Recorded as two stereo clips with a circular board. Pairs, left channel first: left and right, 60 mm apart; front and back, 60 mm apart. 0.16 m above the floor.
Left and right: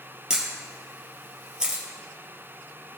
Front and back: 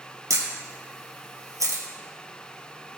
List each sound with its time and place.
0.3 s a camera shutter: 165° right, 2.5 m